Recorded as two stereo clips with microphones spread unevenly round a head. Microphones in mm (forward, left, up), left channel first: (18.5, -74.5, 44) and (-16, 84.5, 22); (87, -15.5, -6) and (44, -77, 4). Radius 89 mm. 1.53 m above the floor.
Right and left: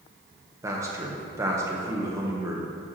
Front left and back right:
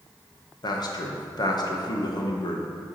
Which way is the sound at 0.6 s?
30° left.